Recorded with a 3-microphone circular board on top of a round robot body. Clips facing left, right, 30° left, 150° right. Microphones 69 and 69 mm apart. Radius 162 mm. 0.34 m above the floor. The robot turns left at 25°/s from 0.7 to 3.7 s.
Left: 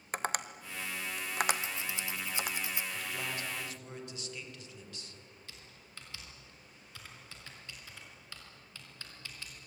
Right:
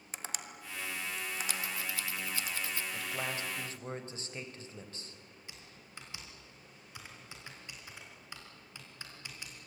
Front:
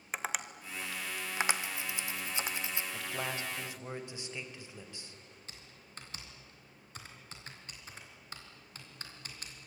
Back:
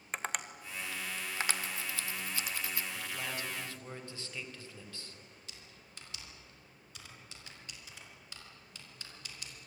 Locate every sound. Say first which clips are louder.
0.1 s tapping: left 10 dB, front 1 dB; 115° left, 1.3 m; by 2.5 s 70° left, 1.3 m
1.5 s scissors: left 1 dB, front 1 dB; 80° left, 1.4 m; by 2.8 s 45° left, 1.4 m
2.9 s a man speaking: right 1 dB, front 2 dB; 20° right, 3 m; by 5.2 s 40° right, 3 m
5.5 s typing on a keyboard: right 1 dB, front 2 dB; 20° right, 3.5 m